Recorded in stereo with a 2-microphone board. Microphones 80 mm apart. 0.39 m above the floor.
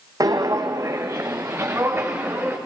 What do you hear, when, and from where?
0.2 s footsteps: 55° right (ahead or behind), 1.2 m; by 2.6 s 25° right (ahead or behind), 3 m